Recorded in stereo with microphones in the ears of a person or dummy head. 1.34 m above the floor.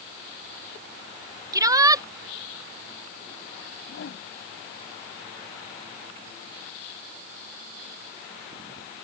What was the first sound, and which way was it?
A shout, 15° right (ahead or behind).